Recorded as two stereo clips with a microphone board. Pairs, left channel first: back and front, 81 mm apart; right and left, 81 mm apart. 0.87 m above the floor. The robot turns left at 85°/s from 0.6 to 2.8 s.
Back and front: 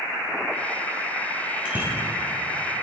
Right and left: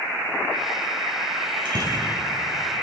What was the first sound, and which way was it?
A bicycle bell, 80° left.